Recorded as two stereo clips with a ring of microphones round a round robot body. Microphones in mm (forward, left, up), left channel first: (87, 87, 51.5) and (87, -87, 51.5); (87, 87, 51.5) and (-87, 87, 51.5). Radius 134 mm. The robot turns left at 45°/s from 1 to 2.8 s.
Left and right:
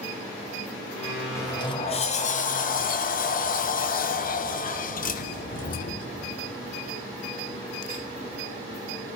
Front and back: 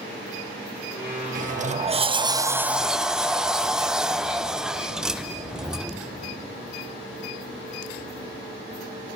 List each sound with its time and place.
1.4 s a sliding door: 160° left, 0.5 m; by 6.1 s 95° left, 0.5 m